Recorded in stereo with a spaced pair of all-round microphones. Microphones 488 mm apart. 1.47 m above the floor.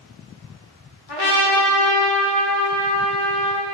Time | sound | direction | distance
1.1 | a trumpet | 55° left (ahead or behind) | 1.6 m